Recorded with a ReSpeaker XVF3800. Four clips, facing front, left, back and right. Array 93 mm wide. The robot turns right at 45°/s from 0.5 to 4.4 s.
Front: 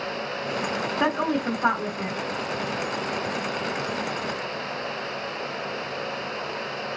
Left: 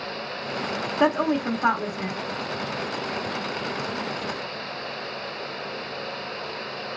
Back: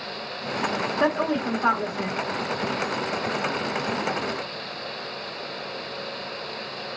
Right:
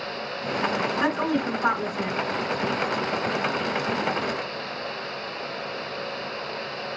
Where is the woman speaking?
55° left, 1.1 m; by 2.2 s 110° left, 1.1 m.